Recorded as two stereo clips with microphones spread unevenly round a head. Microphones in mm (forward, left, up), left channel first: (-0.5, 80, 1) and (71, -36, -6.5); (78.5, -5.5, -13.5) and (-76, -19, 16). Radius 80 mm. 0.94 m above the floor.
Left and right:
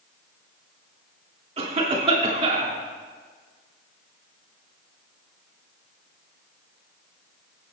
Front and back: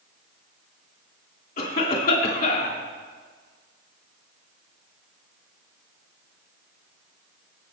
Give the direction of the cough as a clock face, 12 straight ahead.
1 o'clock.